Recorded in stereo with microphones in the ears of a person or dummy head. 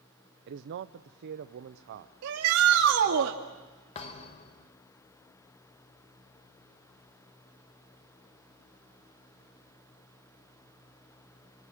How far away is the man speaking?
About 0.6 m.